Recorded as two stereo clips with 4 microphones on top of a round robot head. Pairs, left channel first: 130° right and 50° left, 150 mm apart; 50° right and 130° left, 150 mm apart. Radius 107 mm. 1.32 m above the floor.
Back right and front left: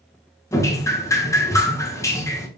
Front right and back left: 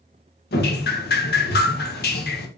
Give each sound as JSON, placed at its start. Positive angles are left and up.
{"t": 0.5, "sound": "dripping", "azimuth_deg": -55, "distance_m": 1.4}